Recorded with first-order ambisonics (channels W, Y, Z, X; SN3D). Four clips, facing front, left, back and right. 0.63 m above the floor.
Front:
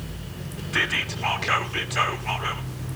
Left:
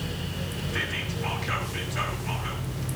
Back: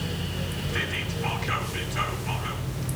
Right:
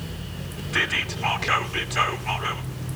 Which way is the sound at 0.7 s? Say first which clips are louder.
Right 8 dB, front 7 dB; 50° right.